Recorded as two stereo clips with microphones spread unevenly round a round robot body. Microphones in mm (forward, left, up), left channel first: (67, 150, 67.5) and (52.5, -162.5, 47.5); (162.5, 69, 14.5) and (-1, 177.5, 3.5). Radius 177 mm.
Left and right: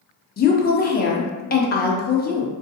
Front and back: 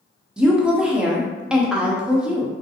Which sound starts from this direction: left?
A woman speaking, at 0.4 s.